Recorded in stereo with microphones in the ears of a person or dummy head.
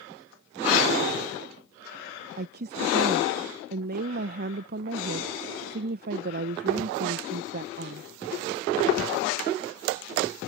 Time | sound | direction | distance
2.4 | a woman speaking | 50° right (ahead or behind) | ?